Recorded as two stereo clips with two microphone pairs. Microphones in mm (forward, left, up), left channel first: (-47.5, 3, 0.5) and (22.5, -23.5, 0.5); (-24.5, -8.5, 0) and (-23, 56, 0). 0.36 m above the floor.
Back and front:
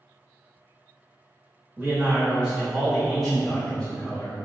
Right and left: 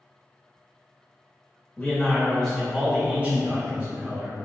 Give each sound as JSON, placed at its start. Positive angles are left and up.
{"t": 1.8, "sound": "a man speaking", "azimuth_deg": -60, "distance_m": 0.9}